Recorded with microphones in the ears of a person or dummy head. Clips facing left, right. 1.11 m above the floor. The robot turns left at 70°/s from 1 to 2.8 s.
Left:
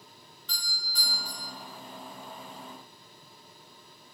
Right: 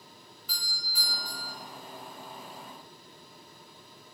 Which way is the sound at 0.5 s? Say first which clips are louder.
Left 1 dB; 175° right.